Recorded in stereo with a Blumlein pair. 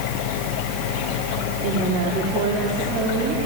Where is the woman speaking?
35° right, 4.5 m.